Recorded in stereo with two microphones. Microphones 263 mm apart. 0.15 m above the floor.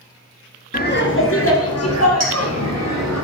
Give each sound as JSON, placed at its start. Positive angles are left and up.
{"t": 0.7, "sound": "laughter", "side_deg": 30, "distance_m": 1.3}
{"t": 2.2, "sound": "a clink", "side_deg": -65, "distance_m": 3.0}